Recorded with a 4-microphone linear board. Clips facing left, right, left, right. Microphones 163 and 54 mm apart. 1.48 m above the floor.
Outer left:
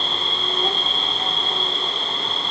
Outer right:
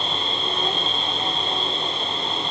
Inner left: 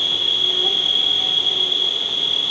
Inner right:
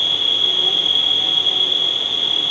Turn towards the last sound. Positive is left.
turn(degrees=30)  # may be behind; listen again after turning